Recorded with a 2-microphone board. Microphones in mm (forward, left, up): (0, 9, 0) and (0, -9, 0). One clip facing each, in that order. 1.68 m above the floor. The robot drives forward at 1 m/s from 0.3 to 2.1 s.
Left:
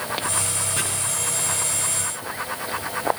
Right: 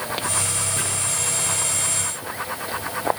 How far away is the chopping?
About 9.5 m.